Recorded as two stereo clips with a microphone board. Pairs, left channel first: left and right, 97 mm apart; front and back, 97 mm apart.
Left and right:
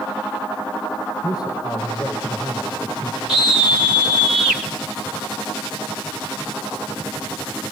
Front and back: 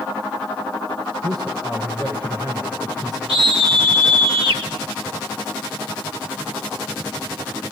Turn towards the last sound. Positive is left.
turn(degrees=-170)